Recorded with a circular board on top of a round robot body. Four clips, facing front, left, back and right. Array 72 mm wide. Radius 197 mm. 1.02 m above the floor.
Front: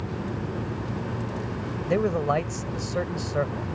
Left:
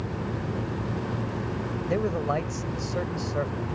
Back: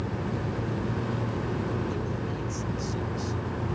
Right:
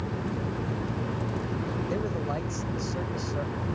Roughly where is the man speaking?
Ahead.